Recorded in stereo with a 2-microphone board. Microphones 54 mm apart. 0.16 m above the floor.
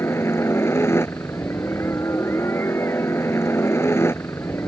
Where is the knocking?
I don't hear knocking.